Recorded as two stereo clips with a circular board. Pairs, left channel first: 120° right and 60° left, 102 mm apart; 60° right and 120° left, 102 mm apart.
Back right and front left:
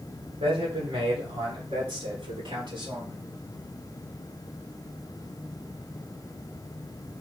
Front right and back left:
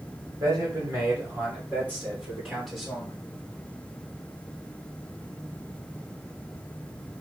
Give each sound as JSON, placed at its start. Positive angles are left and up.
{"t": 0.4, "sound": "a man speaking", "azimuth_deg": 65, "distance_m": 3.5}